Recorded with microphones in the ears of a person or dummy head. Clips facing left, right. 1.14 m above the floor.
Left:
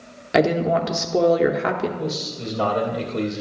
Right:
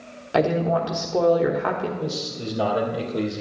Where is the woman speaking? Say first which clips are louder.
Left 2 dB; 25° left (ahead or behind), 0.7 m.